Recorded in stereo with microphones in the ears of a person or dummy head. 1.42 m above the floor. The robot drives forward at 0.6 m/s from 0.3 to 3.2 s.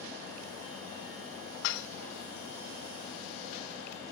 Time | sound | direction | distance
1.6 | dishes clattering | 65° left (ahead or behind) | ?